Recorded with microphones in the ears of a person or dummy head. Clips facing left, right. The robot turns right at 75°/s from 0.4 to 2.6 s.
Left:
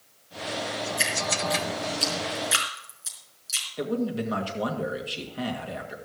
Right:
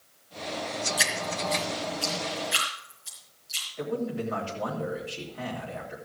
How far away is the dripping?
About 4 m.